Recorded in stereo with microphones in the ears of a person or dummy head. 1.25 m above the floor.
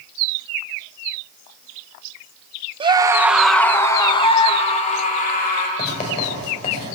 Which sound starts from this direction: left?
Writing, at 5.8 s.